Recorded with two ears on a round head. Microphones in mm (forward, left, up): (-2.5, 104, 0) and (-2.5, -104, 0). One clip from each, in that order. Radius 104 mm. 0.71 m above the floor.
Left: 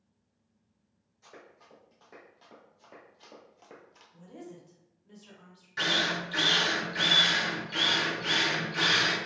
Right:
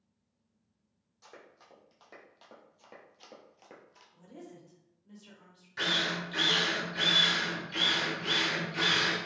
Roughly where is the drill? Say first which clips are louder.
Left 2 dB; centre.